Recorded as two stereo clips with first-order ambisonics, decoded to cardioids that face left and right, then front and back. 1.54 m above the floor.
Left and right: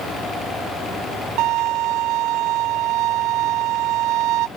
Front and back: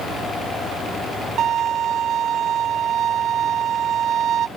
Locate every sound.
1.4 s a violin: 125° right